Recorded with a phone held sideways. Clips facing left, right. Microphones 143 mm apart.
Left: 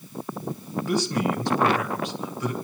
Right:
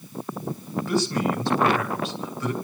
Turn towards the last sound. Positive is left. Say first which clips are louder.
# right 1 dB
turn(degrees=15)  # may be behind; listen again after turning